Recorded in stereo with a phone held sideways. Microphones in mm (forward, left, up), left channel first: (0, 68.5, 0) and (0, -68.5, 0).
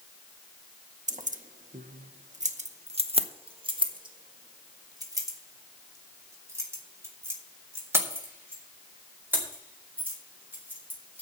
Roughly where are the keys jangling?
Right.